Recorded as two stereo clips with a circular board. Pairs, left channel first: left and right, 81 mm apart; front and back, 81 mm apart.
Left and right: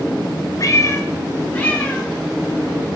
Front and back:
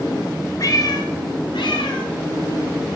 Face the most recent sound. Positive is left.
turn(degrees=0)